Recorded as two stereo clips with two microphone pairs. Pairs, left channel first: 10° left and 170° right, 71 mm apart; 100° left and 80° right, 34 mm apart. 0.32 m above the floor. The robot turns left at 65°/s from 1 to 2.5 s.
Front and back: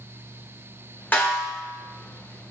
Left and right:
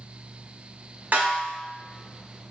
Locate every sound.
1.1 s a snare drum: 50° right, 1.1 m; by 1.6 s 80° right, 1.1 m